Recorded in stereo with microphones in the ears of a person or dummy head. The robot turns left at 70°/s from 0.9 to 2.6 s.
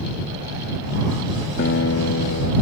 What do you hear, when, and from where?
1.6 s a guitar: 125° left; by 2.5 s 60° left